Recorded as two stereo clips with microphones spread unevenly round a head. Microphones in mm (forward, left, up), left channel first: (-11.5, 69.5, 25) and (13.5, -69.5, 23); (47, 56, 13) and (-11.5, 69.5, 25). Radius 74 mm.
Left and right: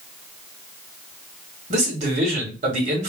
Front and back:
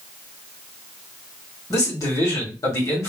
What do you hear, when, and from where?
1.7 s a man speaking: 45° right, 2 m